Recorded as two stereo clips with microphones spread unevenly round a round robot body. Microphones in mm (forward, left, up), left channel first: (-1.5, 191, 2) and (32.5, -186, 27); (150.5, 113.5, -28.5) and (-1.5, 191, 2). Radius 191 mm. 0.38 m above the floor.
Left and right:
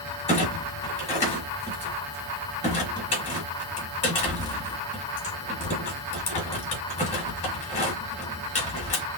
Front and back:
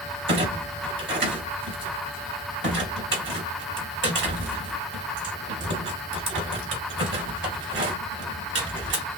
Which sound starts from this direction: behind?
A clunk, at 0.3 s.